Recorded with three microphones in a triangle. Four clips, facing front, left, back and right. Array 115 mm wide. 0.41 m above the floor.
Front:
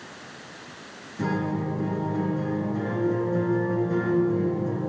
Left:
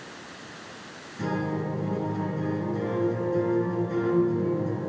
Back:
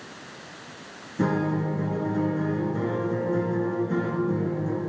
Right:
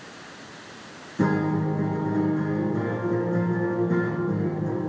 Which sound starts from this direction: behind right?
A guitar, at 1.2 s.